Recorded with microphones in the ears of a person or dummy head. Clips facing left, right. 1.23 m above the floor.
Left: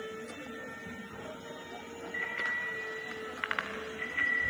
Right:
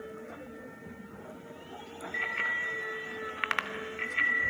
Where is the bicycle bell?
55° right (ahead or behind), 3 m.